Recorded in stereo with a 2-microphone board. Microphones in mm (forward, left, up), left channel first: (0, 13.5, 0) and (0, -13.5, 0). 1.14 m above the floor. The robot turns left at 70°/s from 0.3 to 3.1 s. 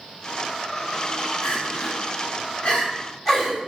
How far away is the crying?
About 3.5 m.